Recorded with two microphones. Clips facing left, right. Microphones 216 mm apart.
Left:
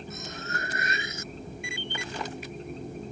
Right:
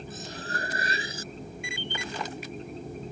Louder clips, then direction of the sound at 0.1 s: Right 1 dB; 35° right (ahead or behind).